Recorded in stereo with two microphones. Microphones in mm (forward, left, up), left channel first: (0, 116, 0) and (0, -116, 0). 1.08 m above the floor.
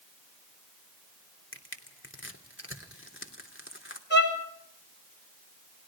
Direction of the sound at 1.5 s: 55° left (ahead or behind).